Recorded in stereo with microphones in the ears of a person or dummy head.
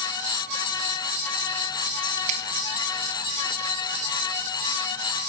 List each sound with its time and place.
2.3 s a finger snap: 35° right (ahead or behind), 1.8 m